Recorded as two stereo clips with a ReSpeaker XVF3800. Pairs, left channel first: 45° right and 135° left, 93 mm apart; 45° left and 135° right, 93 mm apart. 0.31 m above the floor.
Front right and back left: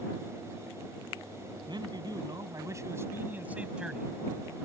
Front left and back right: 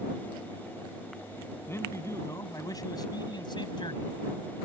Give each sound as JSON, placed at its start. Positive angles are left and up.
{"t": 1.7, "sound": "a man speaking", "azimuth_deg": 105}